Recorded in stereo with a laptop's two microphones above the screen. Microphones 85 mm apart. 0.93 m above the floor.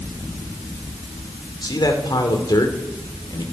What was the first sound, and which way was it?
A man speaking, 60° left (ahead or behind).